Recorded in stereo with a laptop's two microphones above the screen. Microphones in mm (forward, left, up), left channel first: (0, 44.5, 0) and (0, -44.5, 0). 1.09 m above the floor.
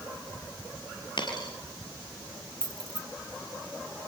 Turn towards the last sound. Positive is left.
turn(degrees=-65)  # may be behind; listen again after turning